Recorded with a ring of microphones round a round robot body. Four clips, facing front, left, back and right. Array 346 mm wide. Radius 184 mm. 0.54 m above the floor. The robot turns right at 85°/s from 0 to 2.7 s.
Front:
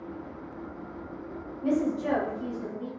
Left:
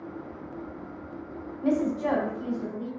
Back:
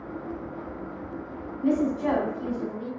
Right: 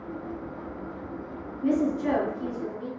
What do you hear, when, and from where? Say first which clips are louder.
1.6 s a woman speaking: right 1 dB, back 3 dB; 90° left, 2.0 m; by 2.9 s straight behind, 2.0 m